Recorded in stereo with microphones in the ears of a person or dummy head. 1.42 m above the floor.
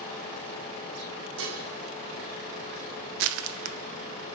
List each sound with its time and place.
1.4 s dishes clattering: 80° right, 3 m
3.2 s crushing: 85° right, 0.9 m